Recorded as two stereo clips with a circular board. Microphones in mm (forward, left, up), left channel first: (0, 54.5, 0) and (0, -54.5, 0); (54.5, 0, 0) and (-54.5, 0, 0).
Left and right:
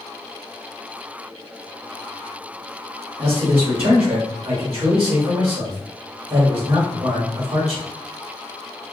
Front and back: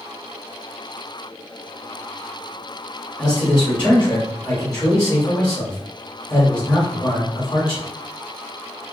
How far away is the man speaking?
About 1.0 m.